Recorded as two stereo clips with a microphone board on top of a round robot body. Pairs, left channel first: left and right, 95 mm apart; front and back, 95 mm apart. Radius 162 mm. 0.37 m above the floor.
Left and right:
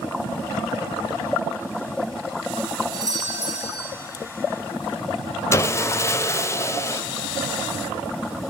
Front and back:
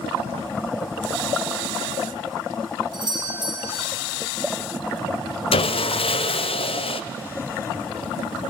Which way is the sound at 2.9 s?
140° right.